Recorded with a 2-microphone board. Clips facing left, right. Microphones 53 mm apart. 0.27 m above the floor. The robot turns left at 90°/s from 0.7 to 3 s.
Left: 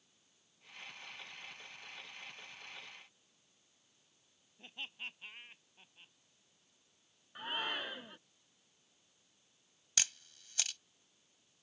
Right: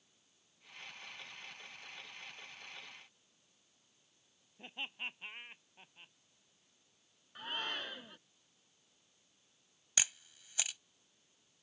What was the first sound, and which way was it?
Laughter, 25° right (ahead or behind).